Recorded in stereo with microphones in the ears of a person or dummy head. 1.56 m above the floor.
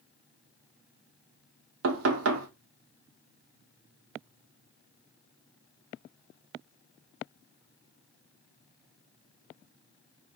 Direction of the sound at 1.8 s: 75° right (ahead or behind).